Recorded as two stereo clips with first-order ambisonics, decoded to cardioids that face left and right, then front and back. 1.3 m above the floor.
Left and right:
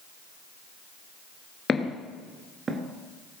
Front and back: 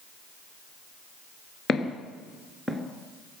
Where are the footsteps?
35° left, 1.4 m; by 2.8 s 110° right, 1.3 m.